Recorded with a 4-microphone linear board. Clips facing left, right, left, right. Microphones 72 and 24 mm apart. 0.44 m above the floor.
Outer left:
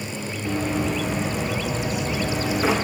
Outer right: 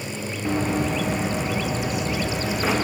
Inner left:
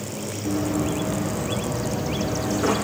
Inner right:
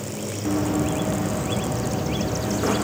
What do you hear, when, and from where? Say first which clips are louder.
0.5 s running footsteps: outer right 1 dB, inner right 1 dB; 30° right (ahead or behind), 1.9 m; by 2.7 s 5° left (ahead or behind), 2 m